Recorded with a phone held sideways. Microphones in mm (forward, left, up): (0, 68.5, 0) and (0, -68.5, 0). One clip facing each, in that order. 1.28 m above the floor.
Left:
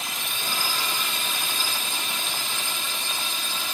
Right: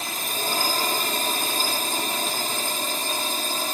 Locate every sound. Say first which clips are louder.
0.0 s a drone: right 4 dB; 40° right (ahead or behind)